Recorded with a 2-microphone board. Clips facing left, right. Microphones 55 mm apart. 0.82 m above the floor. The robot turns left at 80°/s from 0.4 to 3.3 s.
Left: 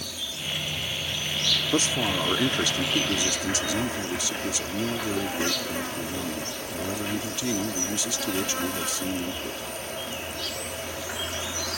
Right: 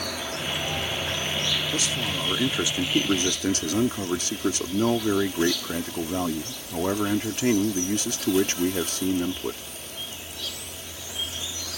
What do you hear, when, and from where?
0.0 s an insect: 70° right; by 11.8 s 55° left
1.7 s a man speaking: 60° left; by 9.6 s 65° right